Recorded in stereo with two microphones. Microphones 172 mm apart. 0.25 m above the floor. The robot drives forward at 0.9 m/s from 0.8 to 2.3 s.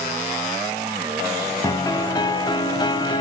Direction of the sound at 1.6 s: 20° left (ahead or behind).